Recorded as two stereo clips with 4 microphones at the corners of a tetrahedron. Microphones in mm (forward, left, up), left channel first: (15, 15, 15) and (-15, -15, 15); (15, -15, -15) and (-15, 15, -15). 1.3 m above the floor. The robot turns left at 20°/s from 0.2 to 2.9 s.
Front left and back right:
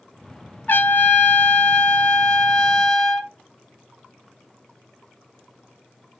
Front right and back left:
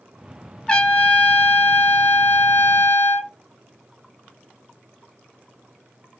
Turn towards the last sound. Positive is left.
turn(degrees=-30)